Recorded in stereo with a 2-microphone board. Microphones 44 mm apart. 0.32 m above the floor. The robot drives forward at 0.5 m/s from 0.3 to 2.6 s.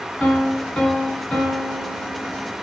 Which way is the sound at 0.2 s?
15° left (ahead or behind).